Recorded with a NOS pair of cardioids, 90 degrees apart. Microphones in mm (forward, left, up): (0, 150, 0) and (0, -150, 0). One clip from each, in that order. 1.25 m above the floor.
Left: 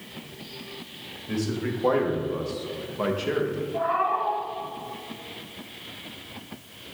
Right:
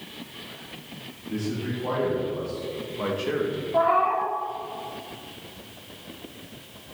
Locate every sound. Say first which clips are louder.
1.3 s a man speaking: left 2 dB; 65° left, 2.5 m; by 3.6 s 5° right, 1.3 m
3.7 s a cat meowing: right 4 dB; 55° right, 1.7 m